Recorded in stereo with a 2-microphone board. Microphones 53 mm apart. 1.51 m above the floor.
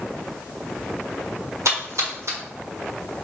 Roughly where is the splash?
Right.